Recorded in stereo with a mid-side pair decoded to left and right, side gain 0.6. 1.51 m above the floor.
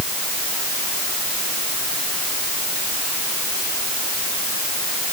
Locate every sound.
Only background noise.